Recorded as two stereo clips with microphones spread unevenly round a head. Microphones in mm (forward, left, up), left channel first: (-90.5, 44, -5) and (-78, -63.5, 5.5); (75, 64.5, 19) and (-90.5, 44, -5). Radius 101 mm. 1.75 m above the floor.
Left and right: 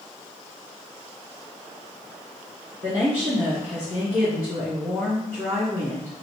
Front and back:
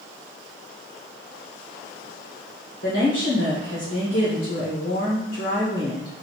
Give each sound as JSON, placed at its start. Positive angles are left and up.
{"t": 2.8, "sound": "a woman speaking", "azimuth_deg": -30, "distance_m": 1.5}